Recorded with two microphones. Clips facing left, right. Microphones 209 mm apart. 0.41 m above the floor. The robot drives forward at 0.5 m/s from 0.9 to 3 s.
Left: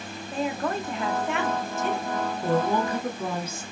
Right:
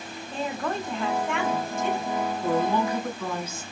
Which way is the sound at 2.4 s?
40° left (ahead or behind).